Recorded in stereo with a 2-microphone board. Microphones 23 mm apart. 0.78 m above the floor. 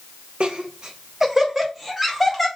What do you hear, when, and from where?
0.4 s laughter: 40° right (ahead or behind), 0.7 m; by 2.5 s 5° left (ahead or behind), 1.2 m